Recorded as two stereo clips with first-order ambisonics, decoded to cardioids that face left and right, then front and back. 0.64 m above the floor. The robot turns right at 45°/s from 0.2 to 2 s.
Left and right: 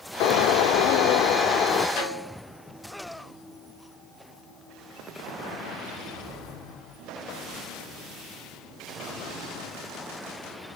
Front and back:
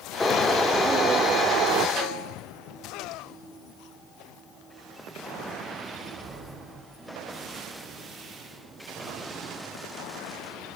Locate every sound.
0.2 s a bird: 75° left, 0.8 m; by 1.9 s 150° left, 0.8 m
2.0 s a snare drum: 130° left, 4.5 m; by 2.4 s 135° left, 4.5 m